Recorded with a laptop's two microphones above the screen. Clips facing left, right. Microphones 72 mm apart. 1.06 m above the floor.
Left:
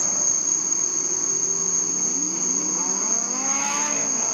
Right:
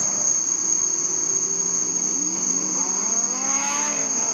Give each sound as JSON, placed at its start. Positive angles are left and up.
{"t": 0.0, "sound": "an insect", "side_deg": -20, "distance_m": 1.7}